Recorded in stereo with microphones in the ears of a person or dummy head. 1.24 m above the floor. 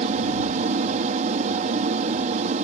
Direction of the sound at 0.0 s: 40° right (ahead or behind).